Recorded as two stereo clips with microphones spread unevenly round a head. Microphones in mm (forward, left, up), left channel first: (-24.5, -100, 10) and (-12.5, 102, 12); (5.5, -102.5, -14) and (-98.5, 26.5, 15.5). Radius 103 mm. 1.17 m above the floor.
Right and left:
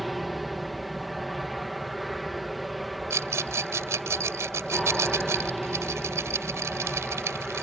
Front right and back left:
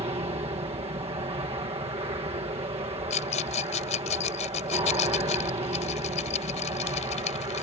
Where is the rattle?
10° left.